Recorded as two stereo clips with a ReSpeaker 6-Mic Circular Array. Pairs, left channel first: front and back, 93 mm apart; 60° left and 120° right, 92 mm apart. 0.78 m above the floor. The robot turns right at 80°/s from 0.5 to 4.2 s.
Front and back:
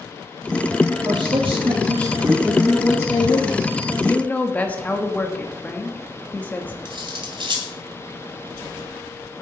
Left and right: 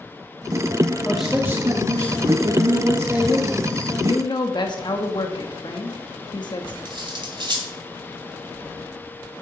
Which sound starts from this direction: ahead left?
A woman speaking, at 4.0 s.